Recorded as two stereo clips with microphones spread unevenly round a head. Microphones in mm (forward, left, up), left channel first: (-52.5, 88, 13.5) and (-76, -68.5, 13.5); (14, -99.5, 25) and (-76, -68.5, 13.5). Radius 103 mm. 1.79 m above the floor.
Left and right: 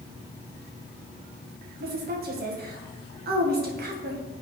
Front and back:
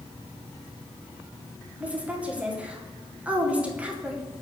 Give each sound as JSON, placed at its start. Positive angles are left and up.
{"t": 1.8, "sound": "a woman speaking", "azimuth_deg": -120, "distance_m": 2.0}